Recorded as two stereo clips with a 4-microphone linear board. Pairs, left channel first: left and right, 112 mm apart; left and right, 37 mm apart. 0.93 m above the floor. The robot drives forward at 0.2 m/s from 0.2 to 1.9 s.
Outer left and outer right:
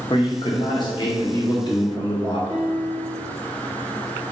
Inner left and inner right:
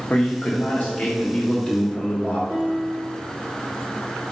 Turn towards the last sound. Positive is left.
turn(degrees=-40)  # may be behind; listen again after turning